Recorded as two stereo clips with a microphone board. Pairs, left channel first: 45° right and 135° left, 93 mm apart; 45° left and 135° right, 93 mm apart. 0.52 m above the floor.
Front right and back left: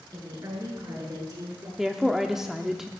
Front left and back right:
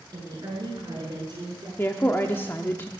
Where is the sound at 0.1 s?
175° left, 7 m; by 1.7 s 175° right, 6.5 m.